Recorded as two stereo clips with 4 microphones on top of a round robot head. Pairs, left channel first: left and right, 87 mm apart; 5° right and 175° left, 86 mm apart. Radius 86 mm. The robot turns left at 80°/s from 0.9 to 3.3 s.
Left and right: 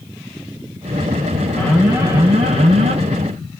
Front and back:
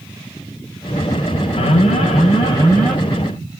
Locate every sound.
1.6 s an alarm: 15° left, 0.8 m; by 3.0 s 95° right, 0.8 m